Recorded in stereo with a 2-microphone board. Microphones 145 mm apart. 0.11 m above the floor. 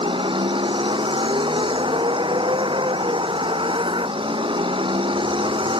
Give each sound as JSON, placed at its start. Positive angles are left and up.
{"t": 0.0, "sound": "a vehicle", "side_deg": -35}